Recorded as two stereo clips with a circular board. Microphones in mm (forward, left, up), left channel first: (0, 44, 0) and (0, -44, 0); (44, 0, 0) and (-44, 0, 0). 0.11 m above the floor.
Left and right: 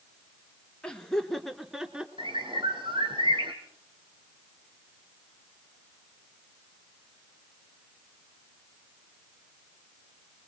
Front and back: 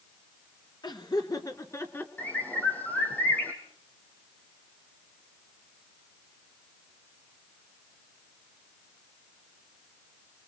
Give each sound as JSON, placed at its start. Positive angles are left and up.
{"t": 0.8, "sound": "laughter", "azimuth_deg": 15, "distance_m": 2.5}
{"t": 2.2, "sound": "a bird", "azimuth_deg": -70, "distance_m": 3.0}